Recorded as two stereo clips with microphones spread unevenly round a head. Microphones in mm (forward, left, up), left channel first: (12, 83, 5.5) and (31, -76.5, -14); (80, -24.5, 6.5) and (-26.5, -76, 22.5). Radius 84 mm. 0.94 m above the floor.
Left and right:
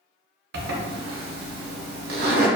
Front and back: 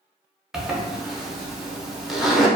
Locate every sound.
0.5 s a zipper: 75° right, 0.6 m